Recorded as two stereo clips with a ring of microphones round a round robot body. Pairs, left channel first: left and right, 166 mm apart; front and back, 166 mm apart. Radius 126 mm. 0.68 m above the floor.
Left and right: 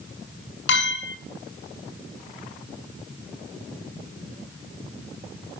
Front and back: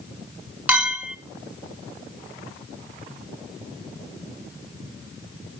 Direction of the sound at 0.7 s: 100° left.